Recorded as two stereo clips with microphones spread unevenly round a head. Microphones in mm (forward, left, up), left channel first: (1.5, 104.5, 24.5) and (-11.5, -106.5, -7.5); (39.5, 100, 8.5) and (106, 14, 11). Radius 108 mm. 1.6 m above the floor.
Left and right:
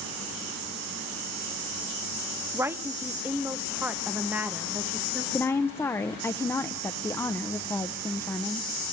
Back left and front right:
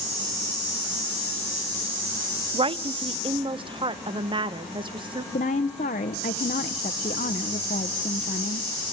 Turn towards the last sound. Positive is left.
turn(degrees=165)